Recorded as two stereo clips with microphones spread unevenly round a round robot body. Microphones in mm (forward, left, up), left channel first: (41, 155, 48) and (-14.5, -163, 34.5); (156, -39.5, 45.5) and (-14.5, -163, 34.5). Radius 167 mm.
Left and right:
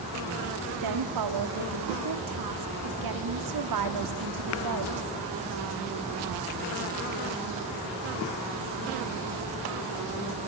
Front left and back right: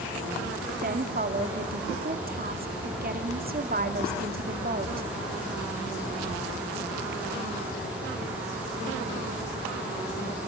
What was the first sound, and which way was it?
A woman speaking, 105° right.